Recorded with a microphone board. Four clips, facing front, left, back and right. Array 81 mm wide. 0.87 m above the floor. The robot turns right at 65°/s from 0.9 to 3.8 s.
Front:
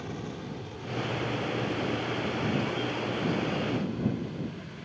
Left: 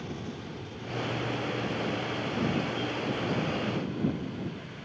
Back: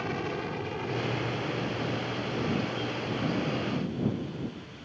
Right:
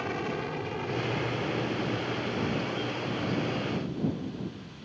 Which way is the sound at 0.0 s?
125° right.